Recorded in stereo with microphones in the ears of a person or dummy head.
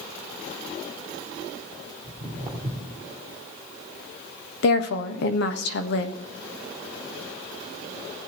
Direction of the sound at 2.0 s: 5° right (ahead or behind).